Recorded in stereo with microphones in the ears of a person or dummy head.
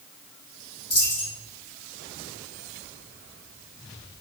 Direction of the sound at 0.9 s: 25° left (ahead or behind).